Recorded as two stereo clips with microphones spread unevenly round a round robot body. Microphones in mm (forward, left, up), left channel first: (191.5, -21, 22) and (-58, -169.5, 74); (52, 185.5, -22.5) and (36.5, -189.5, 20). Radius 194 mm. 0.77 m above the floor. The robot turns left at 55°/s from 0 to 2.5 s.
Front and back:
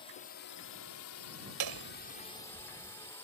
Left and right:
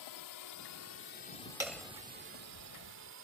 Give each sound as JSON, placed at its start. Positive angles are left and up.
{"t": 0.0, "sound": "a drone", "azimuth_deg": 95}
{"t": 1.6, "sound": "hammering", "azimuth_deg": -175}